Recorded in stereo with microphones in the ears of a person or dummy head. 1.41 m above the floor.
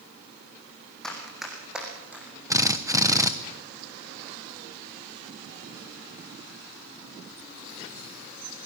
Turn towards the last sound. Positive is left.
turn(degrees=-20)  # may be behind; listen again after turning